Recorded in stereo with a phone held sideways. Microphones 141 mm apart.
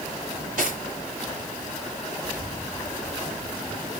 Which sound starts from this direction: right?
Cutlery clinking, at 0.3 s.